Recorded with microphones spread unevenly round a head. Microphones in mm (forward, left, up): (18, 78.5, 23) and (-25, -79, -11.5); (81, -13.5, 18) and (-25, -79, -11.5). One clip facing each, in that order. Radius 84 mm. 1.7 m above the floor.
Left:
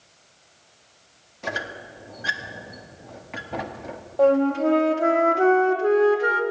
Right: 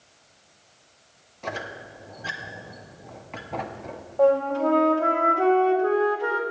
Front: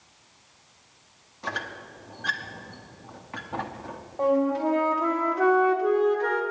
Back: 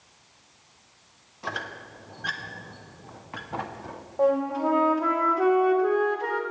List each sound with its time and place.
1.4 s a squeak: 90° left, 0.6 m
4.2 s a flute: 115° left, 0.9 m